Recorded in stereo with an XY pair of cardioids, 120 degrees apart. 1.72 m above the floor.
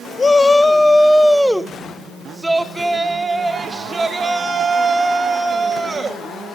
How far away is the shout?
About 1.2 m.